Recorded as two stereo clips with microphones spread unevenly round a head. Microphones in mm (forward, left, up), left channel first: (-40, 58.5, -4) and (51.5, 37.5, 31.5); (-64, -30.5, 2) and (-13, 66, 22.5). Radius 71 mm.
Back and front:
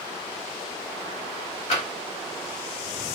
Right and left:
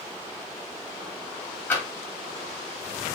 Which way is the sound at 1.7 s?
165° left.